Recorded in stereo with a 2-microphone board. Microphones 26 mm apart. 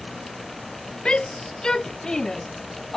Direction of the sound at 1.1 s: 35° left (ahead or behind).